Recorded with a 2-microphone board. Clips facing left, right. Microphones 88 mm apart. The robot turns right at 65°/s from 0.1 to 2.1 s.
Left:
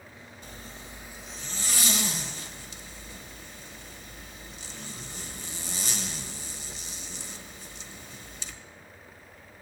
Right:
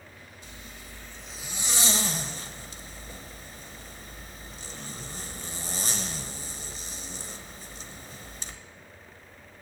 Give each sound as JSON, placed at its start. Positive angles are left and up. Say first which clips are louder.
{"t": 0.4, "sound": "a zipper", "louder": "left 3 dB", "side_deg": 45, "distance_m": 1.0}